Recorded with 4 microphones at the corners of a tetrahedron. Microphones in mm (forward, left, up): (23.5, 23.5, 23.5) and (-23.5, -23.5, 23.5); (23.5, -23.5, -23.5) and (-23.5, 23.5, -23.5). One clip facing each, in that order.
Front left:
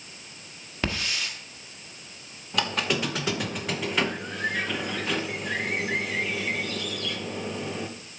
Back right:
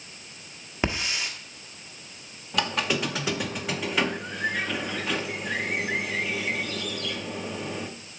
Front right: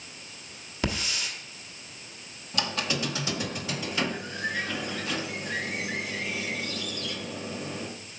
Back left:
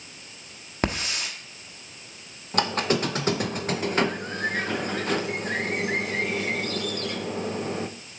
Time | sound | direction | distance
0.8 | a hiss | 160° left | 1.2 m
2.5 | a squeak | 135° left | 0.7 m